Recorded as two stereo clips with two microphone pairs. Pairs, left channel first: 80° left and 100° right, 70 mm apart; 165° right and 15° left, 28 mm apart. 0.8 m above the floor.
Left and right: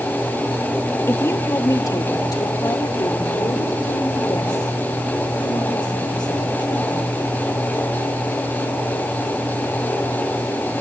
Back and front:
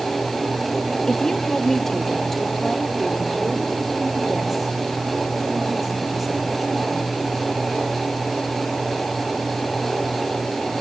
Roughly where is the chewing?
I don't hear chewing.